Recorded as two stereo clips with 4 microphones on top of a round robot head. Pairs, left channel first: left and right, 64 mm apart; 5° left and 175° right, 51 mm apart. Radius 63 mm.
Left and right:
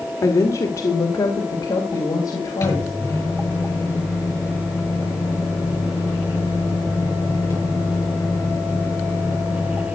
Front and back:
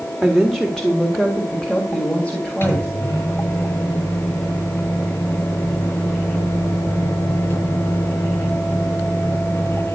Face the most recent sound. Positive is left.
turn(degrees=45)